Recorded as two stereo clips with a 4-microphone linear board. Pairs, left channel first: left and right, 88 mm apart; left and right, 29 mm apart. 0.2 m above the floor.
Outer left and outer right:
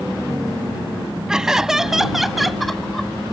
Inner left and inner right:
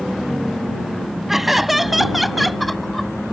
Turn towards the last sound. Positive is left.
turn(degrees=5)  # may be behind; listen again after turning